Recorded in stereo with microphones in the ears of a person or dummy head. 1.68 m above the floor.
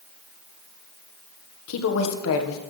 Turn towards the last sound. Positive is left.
turn(degrees=75)  # may be behind; listen again after turning